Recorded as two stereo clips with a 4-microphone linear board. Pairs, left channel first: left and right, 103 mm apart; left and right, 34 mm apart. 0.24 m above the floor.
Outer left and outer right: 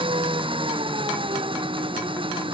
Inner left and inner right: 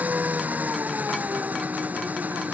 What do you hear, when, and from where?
0.0 s an engine running: 55° right (ahead or behind)